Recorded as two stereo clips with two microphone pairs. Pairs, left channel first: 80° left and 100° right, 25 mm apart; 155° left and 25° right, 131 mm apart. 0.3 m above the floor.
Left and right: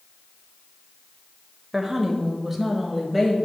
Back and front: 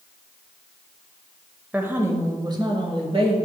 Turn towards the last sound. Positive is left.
turn(degrees=-10)